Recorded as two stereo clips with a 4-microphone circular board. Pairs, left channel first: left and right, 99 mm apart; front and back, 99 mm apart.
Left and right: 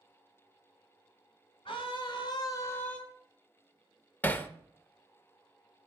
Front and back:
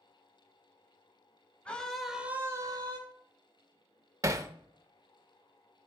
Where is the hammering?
150° left, 0.7 m.